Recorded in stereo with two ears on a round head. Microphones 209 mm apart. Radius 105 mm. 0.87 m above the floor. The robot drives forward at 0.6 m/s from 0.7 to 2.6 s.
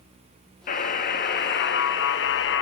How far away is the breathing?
No breathing in this recording.